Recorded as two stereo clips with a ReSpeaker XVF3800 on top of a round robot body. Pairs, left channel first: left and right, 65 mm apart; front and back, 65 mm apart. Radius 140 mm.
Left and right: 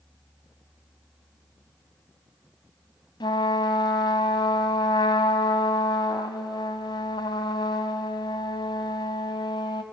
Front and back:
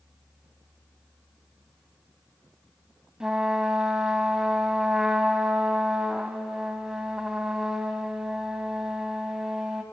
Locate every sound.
3.2 s a trumpet: 95° left, 0.6 m